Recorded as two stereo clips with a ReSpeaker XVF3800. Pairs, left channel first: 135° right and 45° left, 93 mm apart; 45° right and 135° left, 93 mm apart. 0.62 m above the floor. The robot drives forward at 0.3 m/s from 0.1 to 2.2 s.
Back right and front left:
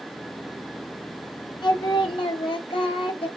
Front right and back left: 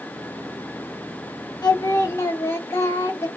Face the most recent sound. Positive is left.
turn(degrees=-105)